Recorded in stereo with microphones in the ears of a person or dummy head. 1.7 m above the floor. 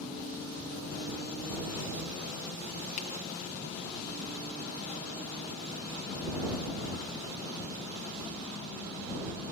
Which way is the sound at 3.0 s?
40° left (ahead or behind).